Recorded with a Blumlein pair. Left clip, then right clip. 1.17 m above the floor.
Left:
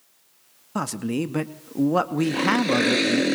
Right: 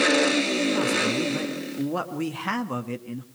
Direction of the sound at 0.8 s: 20° left.